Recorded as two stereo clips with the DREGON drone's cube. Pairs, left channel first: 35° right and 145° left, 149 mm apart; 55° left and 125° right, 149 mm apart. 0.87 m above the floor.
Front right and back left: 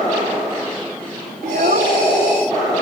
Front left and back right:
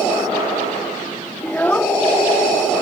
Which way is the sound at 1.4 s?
130° left.